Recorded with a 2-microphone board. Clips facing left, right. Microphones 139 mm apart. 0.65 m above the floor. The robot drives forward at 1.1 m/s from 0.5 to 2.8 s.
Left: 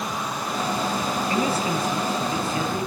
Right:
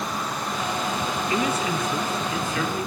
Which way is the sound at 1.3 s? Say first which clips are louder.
Left 1 dB; 35° left (ahead or behind).